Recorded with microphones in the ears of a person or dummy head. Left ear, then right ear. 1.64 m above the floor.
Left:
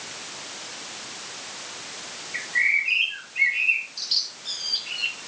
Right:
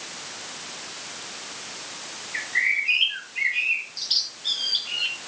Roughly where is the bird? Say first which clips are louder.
Left 1 dB; right.